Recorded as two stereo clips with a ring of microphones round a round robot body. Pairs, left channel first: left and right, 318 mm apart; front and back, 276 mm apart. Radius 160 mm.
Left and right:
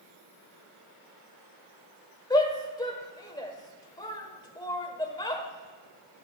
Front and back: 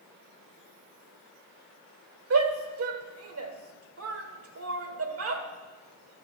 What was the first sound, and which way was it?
A shout, 165° left.